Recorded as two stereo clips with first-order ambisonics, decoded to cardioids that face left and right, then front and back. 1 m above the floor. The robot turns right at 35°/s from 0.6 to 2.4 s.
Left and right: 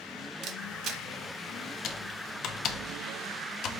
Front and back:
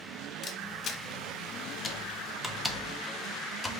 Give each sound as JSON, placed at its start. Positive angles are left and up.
{"t": 0.4, "sound": "a camera shutter", "azimuth_deg": -55, "distance_m": 0.7}
{"t": 1.8, "sound": "typing on a keyboard", "azimuth_deg": 60, "distance_m": 0.6}